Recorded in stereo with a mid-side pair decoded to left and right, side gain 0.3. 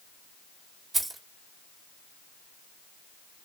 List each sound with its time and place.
0.9 s keys jangling: 55° right, 1.4 m